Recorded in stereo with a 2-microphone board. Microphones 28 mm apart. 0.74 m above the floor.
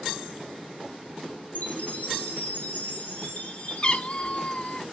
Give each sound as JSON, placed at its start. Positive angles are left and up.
{"t": 1.6, "sound": "a chime", "side_deg": 70, "distance_m": 2.0}
{"t": 3.8, "sound": "a cat meowing", "side_deg": 35, "distance_m": 0.6}